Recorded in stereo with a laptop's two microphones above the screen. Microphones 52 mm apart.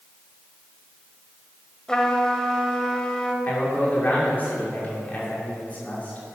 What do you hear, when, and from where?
1.9 s a trumpet: 15° left (ahead or behind), 1.0 m
3.4 s a man speaking: 30° left (ahead or behind), 2.5 m